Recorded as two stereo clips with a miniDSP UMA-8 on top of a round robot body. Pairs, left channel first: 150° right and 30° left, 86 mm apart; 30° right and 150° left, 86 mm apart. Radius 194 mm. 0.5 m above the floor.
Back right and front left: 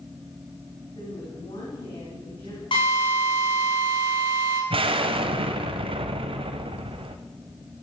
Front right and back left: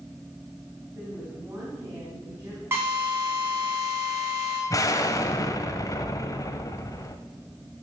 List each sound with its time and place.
0.9 s a woman speaking: 155° right, 4.5 m
2.7 s a drill: 150° right, 7 m
4.7 s an explosion: 20° left, 0.9 m